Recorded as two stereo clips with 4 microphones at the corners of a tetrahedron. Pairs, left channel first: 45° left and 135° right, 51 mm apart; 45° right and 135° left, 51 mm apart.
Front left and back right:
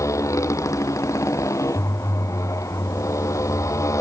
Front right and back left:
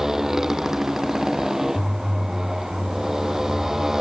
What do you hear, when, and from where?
0.0 s a motorcycle: 55° left